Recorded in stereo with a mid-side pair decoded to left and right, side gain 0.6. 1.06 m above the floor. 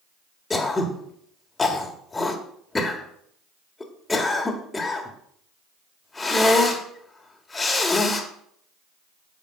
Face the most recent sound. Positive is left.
turn(degrees=15)